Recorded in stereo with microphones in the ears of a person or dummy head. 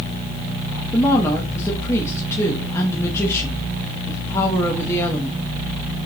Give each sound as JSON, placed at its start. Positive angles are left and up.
{"t": 0.9, "sound": "a woman speaking", "side_deg": 15, "distance_m": 1.3}